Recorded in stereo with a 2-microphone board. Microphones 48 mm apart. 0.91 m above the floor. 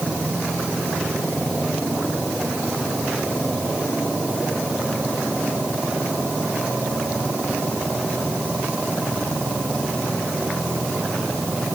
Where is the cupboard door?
I don't hear a cupboard door.